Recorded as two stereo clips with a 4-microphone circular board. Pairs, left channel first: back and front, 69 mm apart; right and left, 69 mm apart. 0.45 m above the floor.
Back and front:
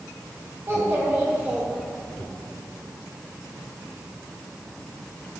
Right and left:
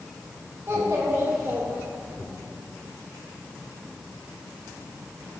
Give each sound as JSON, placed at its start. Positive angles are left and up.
{"t": 0.7, "sound": "a child speaking", "azimuth_deg": 45, "distance_m": 1.6}